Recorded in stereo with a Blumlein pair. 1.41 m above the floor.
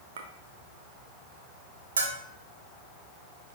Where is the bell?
65° right, 1.1 m.